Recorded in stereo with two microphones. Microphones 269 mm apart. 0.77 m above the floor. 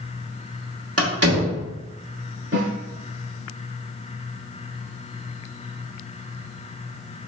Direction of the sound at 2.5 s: 55° right (ahead or behind).